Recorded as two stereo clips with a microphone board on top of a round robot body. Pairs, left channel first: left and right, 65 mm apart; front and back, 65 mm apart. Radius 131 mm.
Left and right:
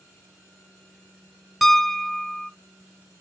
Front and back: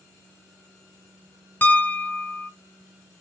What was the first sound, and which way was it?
A piano, straight ahead.